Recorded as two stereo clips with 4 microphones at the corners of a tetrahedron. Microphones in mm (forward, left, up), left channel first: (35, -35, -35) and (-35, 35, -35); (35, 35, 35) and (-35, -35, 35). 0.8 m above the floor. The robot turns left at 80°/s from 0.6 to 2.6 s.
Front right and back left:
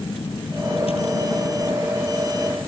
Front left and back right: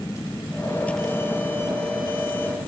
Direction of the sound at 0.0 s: 15° right.